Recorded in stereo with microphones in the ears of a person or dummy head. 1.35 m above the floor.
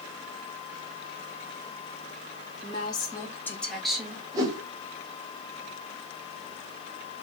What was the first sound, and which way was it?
A woman speaking, 30° left (ahead or behind).